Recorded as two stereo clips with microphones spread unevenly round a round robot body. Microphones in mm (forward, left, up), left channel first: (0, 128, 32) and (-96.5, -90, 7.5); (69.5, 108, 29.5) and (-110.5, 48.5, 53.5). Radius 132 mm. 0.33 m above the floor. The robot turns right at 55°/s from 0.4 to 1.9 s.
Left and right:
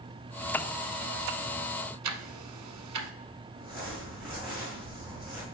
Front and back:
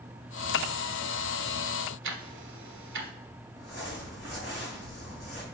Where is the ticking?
120° right, 0.9 m.